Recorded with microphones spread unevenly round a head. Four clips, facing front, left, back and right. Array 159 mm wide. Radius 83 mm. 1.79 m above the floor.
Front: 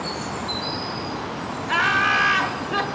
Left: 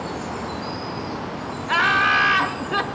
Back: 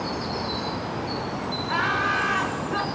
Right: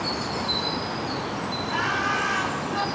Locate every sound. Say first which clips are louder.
1.7 s laughter: left 8 dB, front 4 dB; 40° left, 3 m